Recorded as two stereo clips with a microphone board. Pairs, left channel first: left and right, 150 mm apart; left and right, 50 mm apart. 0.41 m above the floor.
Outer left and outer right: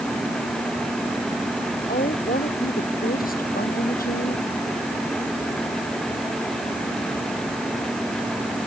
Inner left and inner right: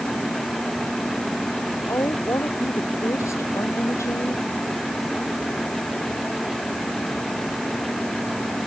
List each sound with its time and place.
1.9 s a woman speaking: 75° left (ahead or behind)